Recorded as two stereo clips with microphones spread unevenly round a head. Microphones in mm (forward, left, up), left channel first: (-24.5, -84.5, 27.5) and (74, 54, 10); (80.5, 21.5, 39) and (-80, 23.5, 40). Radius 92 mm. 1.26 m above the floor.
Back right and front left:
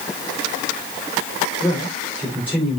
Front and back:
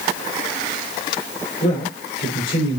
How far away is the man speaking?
About 5.5 m.